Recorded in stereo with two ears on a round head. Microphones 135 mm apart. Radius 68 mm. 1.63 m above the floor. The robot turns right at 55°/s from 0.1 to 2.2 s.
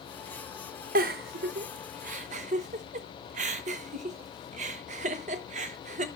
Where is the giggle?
60° right (ahead or behind), 0.7 m; by 6.1 s 45° right (ahead or behind), 0.7 m.